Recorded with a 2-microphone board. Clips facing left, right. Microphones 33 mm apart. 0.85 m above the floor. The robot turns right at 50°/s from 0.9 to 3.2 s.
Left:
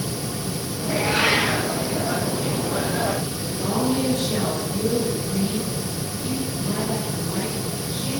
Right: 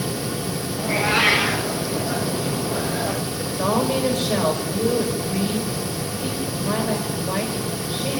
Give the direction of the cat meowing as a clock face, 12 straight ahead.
2 o'clock.